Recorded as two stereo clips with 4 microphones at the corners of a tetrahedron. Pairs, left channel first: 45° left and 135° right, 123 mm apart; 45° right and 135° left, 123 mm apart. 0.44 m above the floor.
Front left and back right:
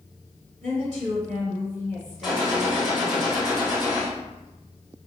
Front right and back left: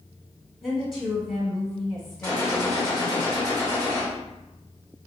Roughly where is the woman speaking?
Behind right.